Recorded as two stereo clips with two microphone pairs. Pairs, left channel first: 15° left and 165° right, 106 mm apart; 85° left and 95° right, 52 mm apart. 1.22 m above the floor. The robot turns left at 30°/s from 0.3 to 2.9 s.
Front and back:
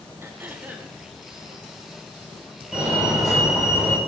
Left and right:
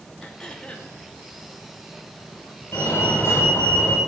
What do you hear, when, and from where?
0.2 s throat clearing: 150° left, 1.0 m; by 0.9 s 130° left, 1.0 m
2.7 s a fire alarm: 120° left, 2 m; by 4.0 s 115° left, 2 m